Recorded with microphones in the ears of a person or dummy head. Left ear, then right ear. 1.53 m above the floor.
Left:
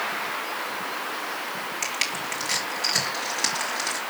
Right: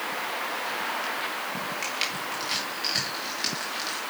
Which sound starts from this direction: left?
Crushing, at 1.8 s.